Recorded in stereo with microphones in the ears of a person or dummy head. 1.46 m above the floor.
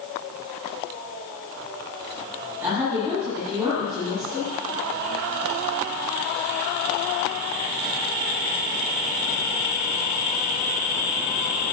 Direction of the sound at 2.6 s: 10° right (ahead or behind).